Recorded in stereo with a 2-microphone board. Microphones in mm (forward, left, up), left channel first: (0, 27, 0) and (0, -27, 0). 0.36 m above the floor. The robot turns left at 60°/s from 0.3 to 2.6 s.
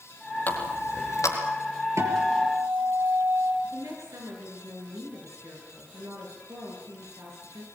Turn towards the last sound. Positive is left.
turn(degrees=-75)  # may be behind; listen again after turning